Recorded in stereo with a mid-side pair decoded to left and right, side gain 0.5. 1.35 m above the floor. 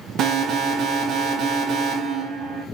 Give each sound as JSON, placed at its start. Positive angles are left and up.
{"t": 0.2, "sound": "an alarm", "azimuth_deg": -70, "distance_m": 2.0}